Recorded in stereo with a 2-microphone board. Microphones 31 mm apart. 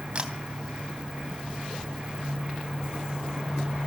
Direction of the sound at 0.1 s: 35° right (ahead or behind).